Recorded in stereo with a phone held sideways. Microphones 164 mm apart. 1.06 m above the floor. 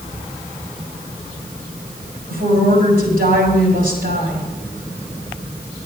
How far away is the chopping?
I don't hear chopping.